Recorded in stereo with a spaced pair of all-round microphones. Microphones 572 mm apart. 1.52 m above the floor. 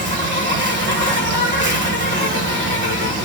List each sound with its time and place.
0.0 s an insect: 20° right (ahead or behind), 0.8 m